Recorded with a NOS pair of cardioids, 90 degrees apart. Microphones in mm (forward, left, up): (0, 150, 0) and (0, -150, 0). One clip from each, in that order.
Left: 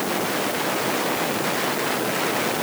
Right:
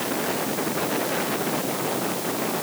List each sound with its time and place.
Only background noise.